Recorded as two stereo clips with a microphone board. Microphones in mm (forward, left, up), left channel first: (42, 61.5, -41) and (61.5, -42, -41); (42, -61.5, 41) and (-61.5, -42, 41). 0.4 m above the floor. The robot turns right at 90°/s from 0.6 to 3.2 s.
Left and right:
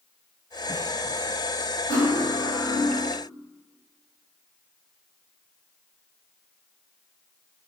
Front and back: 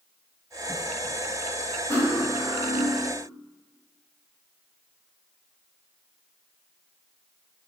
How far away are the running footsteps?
No running footsteps in this recording.